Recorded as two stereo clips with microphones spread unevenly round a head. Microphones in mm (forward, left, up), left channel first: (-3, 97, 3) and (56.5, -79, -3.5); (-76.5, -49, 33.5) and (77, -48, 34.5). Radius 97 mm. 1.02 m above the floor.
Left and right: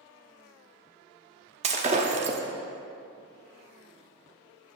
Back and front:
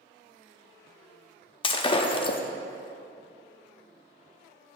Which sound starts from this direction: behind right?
Breaking glass, at 1.6 s.